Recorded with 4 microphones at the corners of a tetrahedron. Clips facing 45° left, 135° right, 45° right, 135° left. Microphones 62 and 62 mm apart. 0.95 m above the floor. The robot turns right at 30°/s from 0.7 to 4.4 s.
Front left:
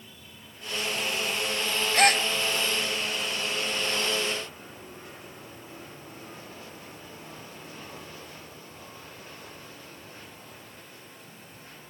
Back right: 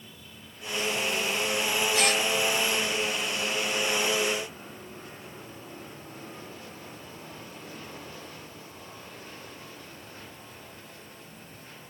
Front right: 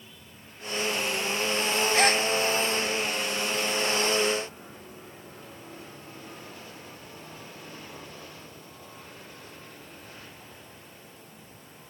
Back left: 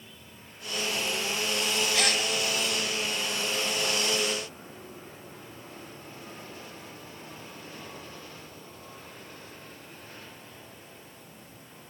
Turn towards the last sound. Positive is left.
turn(degrees=80)